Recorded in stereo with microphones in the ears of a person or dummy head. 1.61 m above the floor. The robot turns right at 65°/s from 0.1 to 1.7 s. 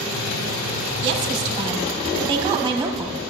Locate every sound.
1.0 s a woman speaking: 75° right, 1.0 m; by 3.2 s 30° right, 1.0 m